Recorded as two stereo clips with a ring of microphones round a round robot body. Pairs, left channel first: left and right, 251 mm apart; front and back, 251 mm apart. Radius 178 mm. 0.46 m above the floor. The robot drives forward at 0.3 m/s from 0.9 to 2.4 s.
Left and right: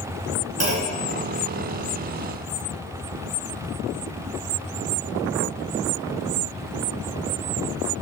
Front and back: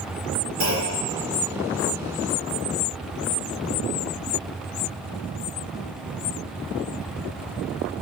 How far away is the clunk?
About 2 m.